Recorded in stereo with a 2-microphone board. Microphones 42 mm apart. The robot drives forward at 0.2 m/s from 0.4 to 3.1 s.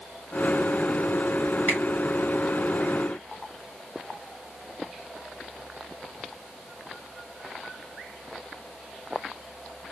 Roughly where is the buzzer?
No buzzer in this recording.